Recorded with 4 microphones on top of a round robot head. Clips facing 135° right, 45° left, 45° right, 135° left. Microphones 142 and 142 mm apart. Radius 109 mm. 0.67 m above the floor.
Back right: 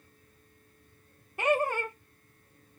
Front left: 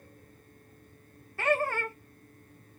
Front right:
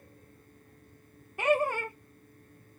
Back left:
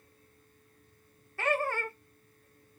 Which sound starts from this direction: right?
Laughter, at 1.4 s.